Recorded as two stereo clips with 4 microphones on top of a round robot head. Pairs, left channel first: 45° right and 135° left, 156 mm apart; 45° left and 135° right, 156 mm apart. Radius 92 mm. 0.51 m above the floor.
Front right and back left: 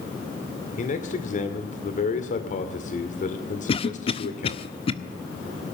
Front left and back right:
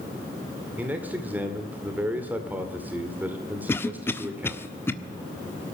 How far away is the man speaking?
About 2 m.